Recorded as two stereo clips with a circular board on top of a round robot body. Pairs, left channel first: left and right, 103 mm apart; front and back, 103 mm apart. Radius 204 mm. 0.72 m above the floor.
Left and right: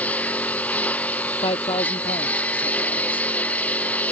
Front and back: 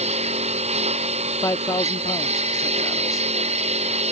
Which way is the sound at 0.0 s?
165° left.